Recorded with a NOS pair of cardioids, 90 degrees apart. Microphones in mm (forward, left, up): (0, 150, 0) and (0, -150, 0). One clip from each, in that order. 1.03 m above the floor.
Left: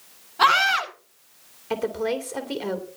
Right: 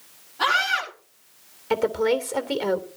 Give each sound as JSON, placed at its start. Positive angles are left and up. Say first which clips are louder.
{"t": 0.4, "sound": "a scream", "louder": "left 3 dB", "azimuth_deg": 60, "distance_m": 10.0}
{"t": 1.7, "sound": "a woman speaking", "louder": "right 4 dB", "azimuth_deg": -20, "distance_m": 3.0}